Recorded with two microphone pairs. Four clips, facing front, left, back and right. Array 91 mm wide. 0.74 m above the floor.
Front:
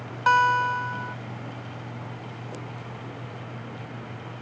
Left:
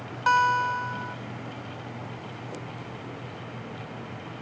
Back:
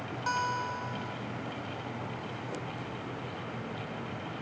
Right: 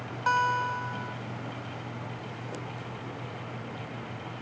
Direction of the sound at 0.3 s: 20° left.